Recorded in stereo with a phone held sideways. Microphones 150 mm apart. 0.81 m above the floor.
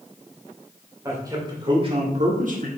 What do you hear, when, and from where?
1.1 s a man speaking: 20° right (ahead or behind), 2.5 m; by 2.7 s 70° right (ahead or behind), 1.5 m